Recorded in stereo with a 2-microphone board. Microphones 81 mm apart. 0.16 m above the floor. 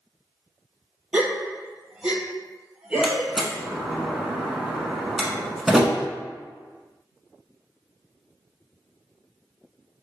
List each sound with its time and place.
1.1 s a gasp: 15° right (ahead or behind), 0.8 m
3.0 s a door slam: 5° right (ahead or behind), 0.9 m